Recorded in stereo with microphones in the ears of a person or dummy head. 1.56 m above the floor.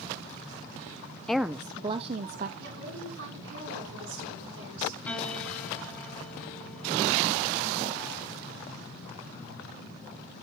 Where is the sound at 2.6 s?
75° right (ahead or behind), 9.5 m.